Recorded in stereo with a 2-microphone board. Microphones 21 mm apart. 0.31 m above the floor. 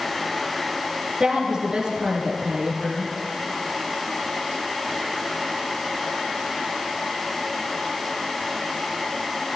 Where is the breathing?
I don't hear breathing.